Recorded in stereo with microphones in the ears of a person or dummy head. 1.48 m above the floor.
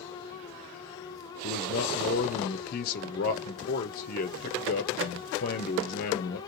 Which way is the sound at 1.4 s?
50° left (ahead or behind).